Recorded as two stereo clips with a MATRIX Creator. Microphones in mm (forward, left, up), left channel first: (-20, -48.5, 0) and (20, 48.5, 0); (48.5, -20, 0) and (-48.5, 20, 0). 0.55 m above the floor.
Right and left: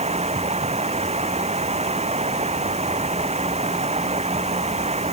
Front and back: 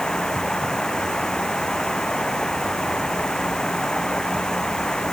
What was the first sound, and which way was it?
Running water, 60° left.